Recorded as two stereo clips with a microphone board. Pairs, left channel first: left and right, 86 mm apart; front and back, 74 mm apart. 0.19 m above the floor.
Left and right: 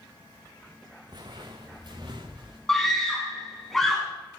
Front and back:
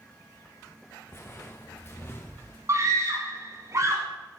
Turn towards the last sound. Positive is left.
turn(degrees=175)